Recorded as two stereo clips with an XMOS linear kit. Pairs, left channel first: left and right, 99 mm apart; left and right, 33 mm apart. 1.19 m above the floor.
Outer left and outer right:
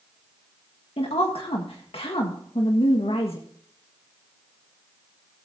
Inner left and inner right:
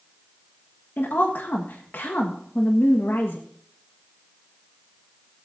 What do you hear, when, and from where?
1.0 s a woman speaking: 75° left (ahead or behind), 1.5 m